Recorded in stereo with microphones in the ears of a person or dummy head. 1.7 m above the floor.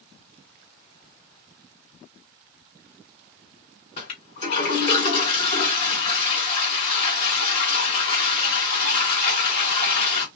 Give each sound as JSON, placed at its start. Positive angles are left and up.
{"t": 4.0, "sound": "a toilet flushing", "side_deg": 50, "distance_m": 2.0}